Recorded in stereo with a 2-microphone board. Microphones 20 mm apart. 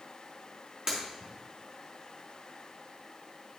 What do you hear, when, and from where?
0.9 s breaking glass: 40° right (ahead or behind), 4.5 m